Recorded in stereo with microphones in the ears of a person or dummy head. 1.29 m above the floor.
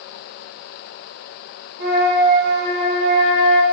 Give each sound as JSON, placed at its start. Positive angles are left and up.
{"t": 1.8, "sound": "a flute", "side_deg": -50, "distance_m": 1.0}